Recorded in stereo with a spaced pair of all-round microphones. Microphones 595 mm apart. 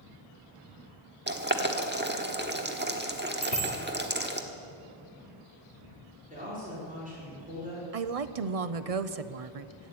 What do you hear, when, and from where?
1.3 s boiling: 15° right (ahead or behind), 1.2 m
3.4 s a bicycle bell: 75° left (ahead or behind), 2.5 m
6.3 s a woman speaking: 15° right (ahead or behind), 5 m
7.9 s a woman speaking: 70° right (ahead or behind), 0.8 m